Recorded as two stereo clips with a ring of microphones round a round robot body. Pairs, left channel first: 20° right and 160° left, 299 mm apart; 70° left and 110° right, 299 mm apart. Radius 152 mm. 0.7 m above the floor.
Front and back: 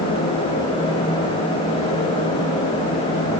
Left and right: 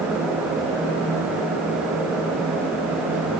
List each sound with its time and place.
Only background noise.